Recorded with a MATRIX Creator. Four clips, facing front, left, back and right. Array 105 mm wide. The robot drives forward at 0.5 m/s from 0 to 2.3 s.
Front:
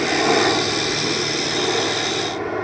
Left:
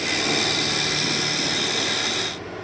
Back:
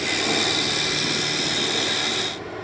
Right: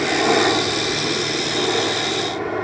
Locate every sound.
0.0 s a helicopter: 45° right